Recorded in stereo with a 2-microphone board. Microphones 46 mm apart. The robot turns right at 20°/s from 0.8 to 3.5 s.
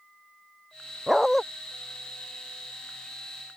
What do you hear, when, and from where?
1.1 s a dog barking: centre (ahead or behind); by 1.4 s 5° left (ahead or behind)